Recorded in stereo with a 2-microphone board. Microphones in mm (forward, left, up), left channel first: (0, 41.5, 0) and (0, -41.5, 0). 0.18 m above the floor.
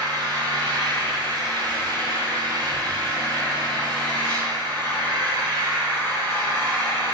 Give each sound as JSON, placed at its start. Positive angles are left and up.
{"t": 0.0, "sound": "an engine running", "side_deg": -55, "distance_m": 1.4}